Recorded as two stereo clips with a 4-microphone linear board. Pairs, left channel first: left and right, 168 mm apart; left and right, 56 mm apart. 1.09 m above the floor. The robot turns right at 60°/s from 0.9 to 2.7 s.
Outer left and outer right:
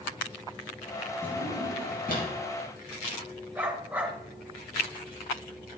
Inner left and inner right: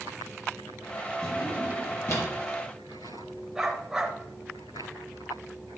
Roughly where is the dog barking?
Centre.